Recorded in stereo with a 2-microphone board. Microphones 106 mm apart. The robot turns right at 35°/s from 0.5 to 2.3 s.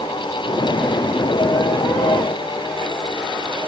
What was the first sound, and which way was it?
Only background noise.